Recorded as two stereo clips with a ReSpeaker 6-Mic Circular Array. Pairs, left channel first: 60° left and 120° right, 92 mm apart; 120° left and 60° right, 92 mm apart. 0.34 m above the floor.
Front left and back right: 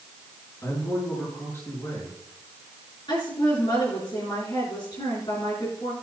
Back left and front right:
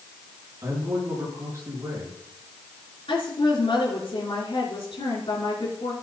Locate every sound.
0.6 s a man speaking: straight ahead, 6 m
3.1 s a woman speaking: 95° left, 4.5 m